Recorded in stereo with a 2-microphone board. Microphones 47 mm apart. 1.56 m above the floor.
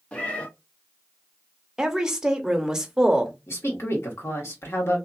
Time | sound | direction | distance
0.1 | a cat meowing | 25° left (ahead or behind) | 0.8 m
1.8 | a woman speaking | 15° right (ahead or behind) | 0.7 m
3.5 | a woman speaking | 70° left (ahead or behind) | 1.4 m